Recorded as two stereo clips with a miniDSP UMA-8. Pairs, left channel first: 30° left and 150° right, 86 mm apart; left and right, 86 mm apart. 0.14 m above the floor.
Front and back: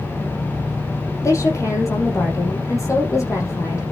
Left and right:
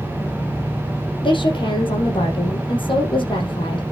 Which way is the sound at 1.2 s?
85° left.